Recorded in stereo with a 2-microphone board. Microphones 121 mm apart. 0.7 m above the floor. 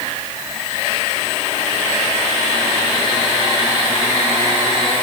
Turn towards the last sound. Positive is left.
No sound to turn to.